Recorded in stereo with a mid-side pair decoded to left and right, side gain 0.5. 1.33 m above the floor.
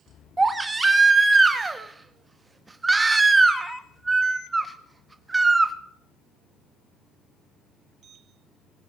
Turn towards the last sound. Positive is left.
turn(degrees=-20)